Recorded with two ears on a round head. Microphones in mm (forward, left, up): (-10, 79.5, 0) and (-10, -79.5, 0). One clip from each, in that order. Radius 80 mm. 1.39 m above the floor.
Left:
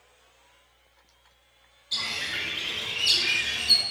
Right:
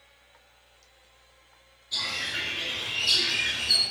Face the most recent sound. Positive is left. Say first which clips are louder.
# even
turn(degrees=40)  # may be behind; listen again after turning